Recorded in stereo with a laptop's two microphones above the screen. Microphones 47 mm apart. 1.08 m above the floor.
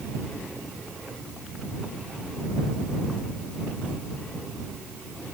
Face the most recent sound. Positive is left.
No sound to turn to.